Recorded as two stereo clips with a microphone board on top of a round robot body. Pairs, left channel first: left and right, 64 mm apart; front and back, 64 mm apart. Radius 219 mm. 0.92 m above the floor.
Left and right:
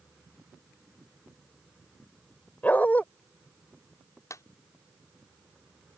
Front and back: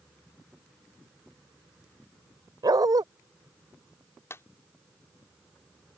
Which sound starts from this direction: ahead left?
A clap, at 4.3 s.